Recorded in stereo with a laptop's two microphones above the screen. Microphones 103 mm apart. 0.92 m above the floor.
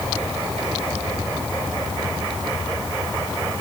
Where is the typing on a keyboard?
No typing on a keyboard in this recording.